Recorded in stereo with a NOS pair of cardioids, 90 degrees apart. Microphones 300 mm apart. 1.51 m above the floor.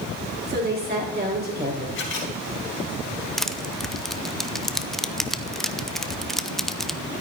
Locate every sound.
0.5 s a woman speaking: 30° right, 5.5 m
1.9 s a camera shutter: 40° left, 4.5 m
3.4 s crushing: straight ahead, 0.6 m